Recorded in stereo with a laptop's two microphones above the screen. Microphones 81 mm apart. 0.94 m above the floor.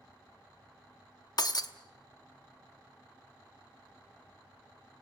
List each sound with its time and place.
1.4 s breaking glass: 55° left (ahead or behind), 0.8 m